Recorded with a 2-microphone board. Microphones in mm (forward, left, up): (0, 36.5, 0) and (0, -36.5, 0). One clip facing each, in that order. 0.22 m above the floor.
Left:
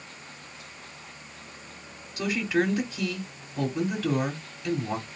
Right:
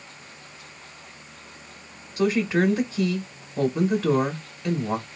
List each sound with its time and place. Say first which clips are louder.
2.2 s a woman speaking: right 4 dB; 25° right (ahead or behind), 1.0 m